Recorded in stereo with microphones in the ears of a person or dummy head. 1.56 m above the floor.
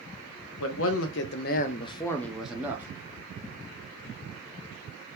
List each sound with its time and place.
0.6 s a man speaking: 75° left (ahead or behind), 0.8 m; by 2.9 s 15° right (ahead or behind), 0.8 m